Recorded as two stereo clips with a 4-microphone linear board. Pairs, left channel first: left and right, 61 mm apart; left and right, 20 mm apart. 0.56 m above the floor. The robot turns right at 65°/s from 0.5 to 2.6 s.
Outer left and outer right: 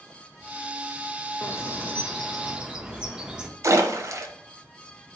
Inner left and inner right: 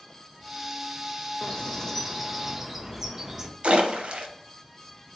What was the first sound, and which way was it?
A bird, 120° left.